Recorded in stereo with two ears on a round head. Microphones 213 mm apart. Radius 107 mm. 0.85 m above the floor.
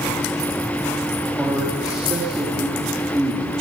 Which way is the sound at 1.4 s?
5° right (ahead or behind).